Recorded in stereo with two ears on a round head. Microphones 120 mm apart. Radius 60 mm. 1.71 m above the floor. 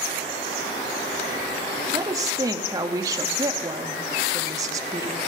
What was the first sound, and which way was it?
A woman speaking, 25° right (ahead or behind).